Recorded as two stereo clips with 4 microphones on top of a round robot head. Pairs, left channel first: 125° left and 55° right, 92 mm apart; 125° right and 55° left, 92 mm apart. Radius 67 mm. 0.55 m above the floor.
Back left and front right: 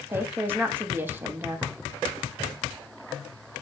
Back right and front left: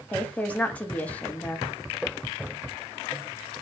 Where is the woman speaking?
75° right, 0.7 m.